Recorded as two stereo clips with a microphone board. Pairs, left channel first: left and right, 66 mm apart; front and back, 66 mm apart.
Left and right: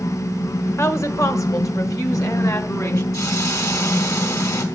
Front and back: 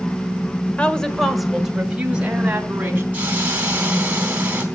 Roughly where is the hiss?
Behind left.